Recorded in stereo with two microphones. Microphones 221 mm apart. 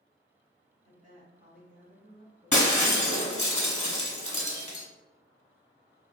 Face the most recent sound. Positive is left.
turn(degrees=35)  # may be behind; listen again after turning